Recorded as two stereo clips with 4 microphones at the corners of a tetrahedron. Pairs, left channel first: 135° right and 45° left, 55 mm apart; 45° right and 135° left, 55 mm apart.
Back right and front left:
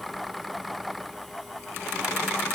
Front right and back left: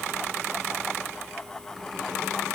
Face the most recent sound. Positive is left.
No sound to turn to.